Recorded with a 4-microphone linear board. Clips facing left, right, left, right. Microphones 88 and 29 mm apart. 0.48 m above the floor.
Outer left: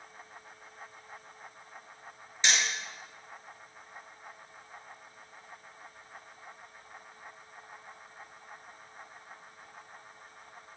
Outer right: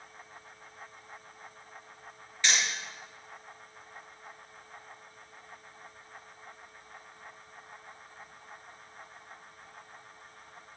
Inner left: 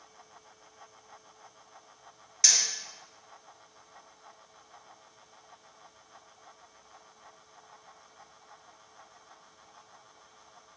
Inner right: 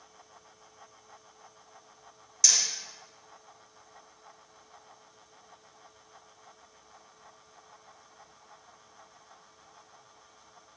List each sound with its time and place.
2.4 s hammering: 20° left (ahead or behind), 4 m